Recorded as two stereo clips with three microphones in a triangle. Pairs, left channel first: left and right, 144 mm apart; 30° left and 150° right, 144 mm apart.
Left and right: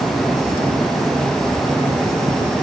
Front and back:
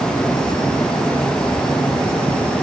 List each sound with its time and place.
Only background noise.